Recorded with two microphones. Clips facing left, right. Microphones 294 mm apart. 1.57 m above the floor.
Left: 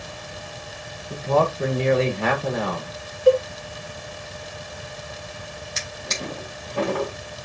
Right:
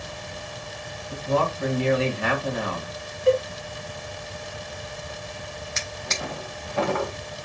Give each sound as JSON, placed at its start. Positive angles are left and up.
{"t": 1.1, "sound": "a man speaking", "side_deg": 75, "distance_m": 4.5}
{"t": 3.3, "sound": "a cowbell", "side_deg": 50, "distance_m": 0.9}
{"t": 5.8, "sound": "a drawer", "side_deg": 40, "distance_m": 4.0}